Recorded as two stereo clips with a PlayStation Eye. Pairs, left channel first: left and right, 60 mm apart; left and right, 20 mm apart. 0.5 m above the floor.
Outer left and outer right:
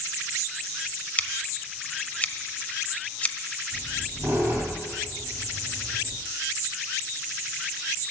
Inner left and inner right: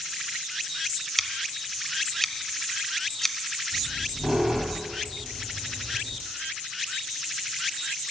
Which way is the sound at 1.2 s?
25° left (ahead or behind).